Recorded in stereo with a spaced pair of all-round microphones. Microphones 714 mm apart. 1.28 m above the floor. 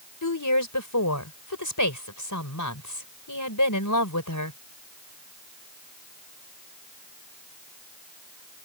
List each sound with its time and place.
0.2 s a woman speaking: 25° left (ahead or behind)